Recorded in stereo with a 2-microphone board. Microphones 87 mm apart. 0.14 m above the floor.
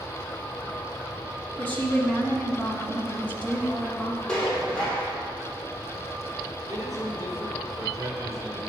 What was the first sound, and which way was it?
A woman speaking, 20° left (ahead or behind).